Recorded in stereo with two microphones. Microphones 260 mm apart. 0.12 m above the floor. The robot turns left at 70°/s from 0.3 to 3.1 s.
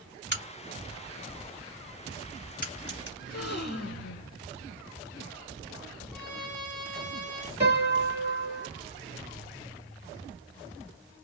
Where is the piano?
25° right (ahead or behind), 2 m.